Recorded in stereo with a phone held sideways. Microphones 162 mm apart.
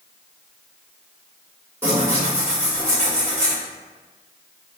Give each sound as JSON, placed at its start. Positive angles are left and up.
{"t": 1.8, "sound": "tearing paper", "side_deg": -15, "distance_m": 1.7}